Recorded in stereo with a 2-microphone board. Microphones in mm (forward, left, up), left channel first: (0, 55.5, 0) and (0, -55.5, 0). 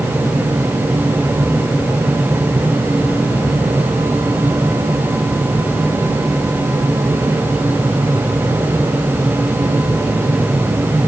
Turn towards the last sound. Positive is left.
No sound to turn to.